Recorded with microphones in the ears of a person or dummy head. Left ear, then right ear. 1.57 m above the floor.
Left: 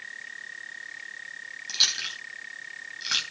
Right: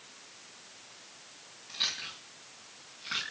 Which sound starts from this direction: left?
Chewing, at 1.7 s.